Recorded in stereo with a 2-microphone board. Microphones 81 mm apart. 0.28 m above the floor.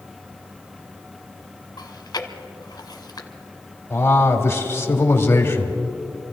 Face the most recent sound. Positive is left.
turn(degrees=25)  # may be behind; listen again after turning